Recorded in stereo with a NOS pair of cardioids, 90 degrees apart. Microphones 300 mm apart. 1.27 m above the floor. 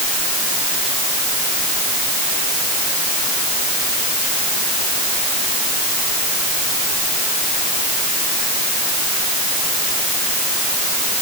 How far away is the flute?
No flute in this recording.